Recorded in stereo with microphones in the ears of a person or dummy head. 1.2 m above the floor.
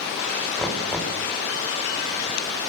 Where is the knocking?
Centre (ahead or behind), 4 m.